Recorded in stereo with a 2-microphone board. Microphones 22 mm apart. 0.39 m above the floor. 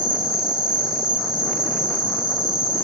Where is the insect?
65° right (ahead or behind), 1.3 m.